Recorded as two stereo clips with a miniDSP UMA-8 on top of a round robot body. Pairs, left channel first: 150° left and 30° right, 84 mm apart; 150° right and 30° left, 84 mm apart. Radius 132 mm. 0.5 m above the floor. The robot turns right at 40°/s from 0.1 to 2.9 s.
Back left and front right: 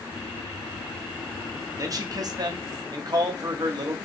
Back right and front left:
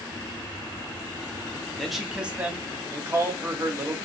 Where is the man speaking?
65° right, 1.2 m; by 4.0 s 20° right, 1.2 m.